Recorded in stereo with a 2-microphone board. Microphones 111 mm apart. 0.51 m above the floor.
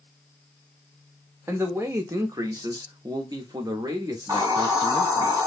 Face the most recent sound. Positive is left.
turn(degrees=-35)  # may be behind; listen again after turning